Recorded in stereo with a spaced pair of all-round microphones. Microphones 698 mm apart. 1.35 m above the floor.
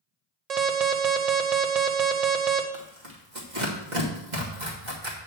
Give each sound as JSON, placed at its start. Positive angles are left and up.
{"t": 0.5, "sound": "an alarm", "side_deg": -65, "distance_m": 0.9}
{"t": 2.7, "sound": "tearing paper", "side_deg": -85, "distance_m": 2.0}